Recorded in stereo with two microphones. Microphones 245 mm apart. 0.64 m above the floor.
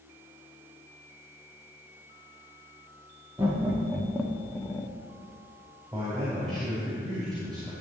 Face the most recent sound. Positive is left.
turn(degrees=-15)  # may be behind; listen again after turning